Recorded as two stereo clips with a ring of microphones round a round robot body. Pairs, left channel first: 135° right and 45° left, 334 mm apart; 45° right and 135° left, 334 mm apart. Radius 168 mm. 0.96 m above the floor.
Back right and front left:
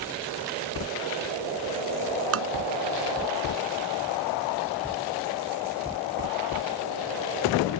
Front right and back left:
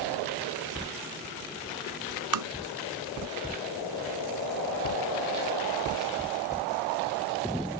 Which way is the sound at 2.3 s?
95° left.